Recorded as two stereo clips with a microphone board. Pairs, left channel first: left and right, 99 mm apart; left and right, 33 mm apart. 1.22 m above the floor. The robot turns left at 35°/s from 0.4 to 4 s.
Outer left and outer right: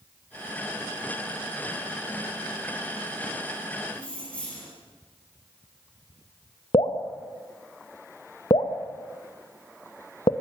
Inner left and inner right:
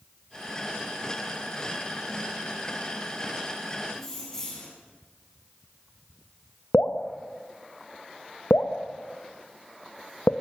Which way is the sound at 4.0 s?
15° left (ahead or behind).